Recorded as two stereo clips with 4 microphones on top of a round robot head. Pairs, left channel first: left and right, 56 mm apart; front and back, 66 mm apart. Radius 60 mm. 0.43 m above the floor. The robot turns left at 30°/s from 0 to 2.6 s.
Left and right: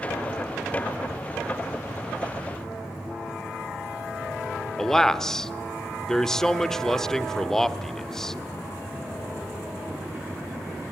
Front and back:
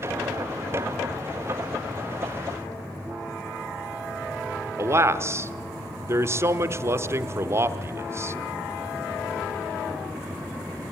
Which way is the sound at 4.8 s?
170° left.